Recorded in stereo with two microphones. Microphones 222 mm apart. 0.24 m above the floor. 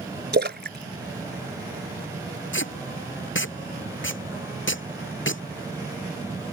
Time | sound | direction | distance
0.3 | a splash | 50° right (ahead or behind) | ?
2.5 | tape being pulled | 60° left (ahead or behind) | ?